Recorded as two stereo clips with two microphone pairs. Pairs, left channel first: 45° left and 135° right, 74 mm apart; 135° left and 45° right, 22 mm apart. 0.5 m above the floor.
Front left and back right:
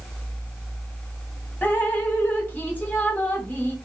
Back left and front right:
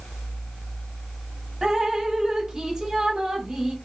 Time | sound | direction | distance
1.6 | dripping | 10° right | 1.0 m